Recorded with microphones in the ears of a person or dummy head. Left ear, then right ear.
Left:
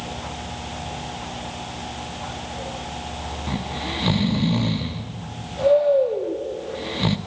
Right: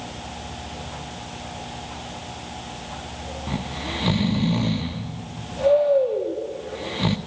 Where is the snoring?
Centre (ahead or behind), 1.0 m.